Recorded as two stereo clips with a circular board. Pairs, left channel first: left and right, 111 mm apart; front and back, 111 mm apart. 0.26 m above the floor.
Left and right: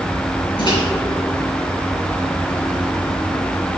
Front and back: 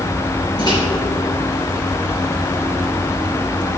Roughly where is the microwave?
Ahead left.